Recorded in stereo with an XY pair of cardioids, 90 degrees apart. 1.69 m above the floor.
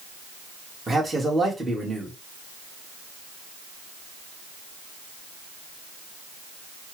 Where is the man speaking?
25° right, 2 m.